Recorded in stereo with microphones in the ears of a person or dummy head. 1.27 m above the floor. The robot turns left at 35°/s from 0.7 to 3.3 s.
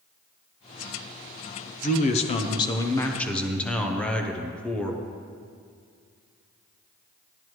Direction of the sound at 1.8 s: 60° left.